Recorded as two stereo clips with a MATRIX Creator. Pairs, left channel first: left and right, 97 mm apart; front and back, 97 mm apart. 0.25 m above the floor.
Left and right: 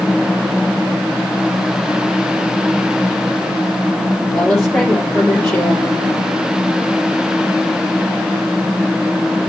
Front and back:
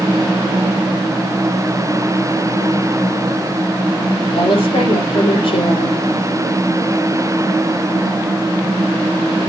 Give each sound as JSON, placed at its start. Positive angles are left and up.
{"t": 4.3, "sound": "a woman speaking", "azimuth_deg": 10, "distance_m": 4.5}